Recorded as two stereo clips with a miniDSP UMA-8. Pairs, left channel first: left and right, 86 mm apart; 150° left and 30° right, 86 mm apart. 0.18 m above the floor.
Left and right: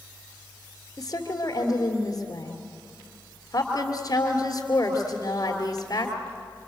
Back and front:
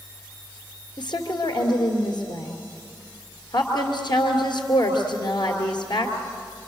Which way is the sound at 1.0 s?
130° left.